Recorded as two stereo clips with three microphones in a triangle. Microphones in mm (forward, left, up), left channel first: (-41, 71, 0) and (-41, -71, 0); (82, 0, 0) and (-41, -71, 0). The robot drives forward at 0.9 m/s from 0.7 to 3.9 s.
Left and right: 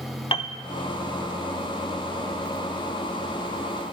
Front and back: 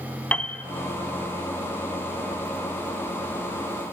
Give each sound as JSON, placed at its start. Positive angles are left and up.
{"t": 0.3, "sound": "a piano", "azimuth_deg": 105, "distance_m": 0.5}